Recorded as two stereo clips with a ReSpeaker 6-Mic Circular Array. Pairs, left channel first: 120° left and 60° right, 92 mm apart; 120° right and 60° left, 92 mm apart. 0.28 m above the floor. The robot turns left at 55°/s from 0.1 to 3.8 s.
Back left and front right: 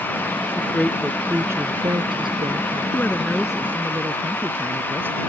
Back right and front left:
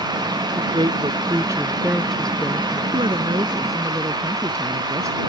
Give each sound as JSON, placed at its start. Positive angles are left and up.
{"t": 0.6, "sound": "a woman speaking", "azimuth_deg": 55}
{"t": 2.9, "sound": "a woman speaking", "azimuth_deg": 55}